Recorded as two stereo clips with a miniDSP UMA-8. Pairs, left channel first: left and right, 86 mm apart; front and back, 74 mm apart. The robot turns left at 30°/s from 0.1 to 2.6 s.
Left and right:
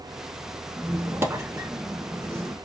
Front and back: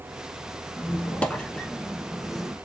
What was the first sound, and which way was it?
A squeak, 45° right.